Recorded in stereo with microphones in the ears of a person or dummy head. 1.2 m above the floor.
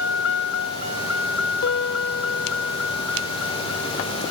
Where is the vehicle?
80° left; by 4.3 s 90° left.